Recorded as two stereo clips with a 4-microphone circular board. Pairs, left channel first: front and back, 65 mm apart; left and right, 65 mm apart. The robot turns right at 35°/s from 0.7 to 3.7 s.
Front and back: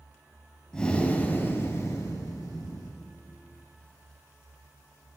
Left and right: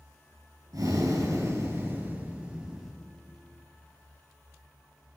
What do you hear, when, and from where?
0.7 s breathing: 80° right, 3.5 m; by 2.9 s straight ahead, 3.5 m